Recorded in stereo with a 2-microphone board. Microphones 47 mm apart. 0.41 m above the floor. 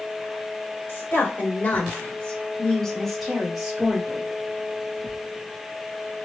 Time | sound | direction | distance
0.9 | a woman speaking | 50° left (ahead or behind) | 1.5 m